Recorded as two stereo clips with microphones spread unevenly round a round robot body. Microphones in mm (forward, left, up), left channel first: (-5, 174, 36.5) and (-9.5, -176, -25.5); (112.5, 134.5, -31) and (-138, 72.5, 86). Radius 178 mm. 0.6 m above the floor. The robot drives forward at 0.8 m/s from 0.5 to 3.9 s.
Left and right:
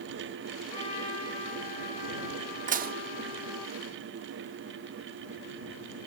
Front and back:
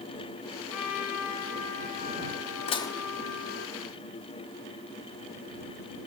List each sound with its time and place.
0.7 s a trumpet: 15° left, 3 m; by 3.7 s 45° left, 1.1 m
2.7 s dishes clattering: 30° right, 0.8 m; by 3.0 s 45° right, 0.6 m